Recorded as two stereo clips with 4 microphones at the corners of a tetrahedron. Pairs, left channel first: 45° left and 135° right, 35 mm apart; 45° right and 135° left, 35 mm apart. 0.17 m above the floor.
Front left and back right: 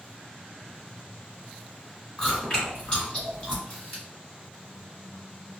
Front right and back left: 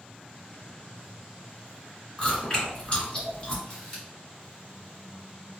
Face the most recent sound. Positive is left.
turn(degrees=30)